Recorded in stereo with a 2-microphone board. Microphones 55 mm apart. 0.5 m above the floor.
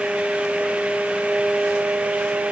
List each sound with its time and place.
Only background noise.